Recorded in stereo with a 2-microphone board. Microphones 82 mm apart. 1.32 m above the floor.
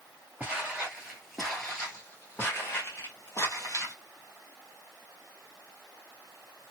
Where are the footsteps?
20° right (ahead or behind), 1.3 m; by 3.9 s 40° left (ahead or behind), 1.8 m.